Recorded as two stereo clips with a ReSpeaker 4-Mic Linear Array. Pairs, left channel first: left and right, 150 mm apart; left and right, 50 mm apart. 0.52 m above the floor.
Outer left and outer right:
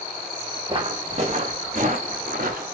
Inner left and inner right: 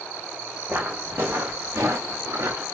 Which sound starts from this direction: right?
Footsteps, at 0.7 s.